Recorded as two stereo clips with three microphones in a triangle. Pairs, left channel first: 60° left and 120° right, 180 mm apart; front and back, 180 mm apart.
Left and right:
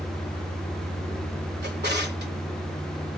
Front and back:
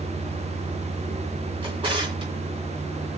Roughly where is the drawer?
Behind right.